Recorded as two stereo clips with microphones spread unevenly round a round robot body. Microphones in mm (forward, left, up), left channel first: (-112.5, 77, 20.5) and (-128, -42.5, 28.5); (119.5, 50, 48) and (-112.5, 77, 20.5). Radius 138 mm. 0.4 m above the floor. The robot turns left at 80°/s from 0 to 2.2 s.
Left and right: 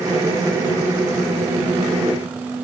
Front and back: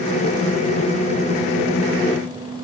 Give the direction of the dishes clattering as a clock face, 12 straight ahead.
No dishes clattering in this recording.